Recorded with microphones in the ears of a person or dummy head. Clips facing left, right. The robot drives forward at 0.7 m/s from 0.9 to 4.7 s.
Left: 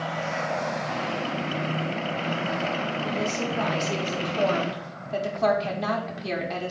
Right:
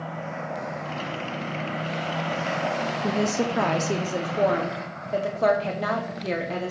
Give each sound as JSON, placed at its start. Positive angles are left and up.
{"t": 3.0, "sound": "a woman speaking", "side_deg": -75, "distance_m": 0.7}